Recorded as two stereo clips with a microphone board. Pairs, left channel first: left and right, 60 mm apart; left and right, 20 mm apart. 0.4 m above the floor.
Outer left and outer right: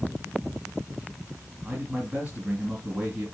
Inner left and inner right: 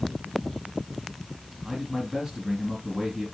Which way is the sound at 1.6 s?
25° right (ahead or behind).